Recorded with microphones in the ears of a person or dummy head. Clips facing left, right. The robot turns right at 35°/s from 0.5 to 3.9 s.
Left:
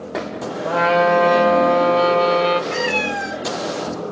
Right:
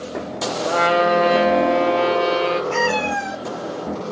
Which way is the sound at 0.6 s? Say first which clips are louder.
Left 2 dB; 15° right.